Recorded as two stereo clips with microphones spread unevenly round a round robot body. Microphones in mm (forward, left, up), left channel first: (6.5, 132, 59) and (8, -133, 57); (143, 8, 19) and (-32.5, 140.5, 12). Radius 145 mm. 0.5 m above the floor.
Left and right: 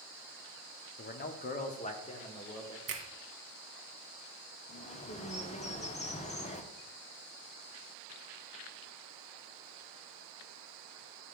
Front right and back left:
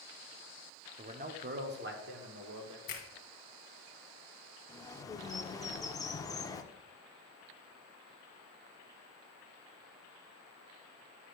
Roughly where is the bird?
Ahead left.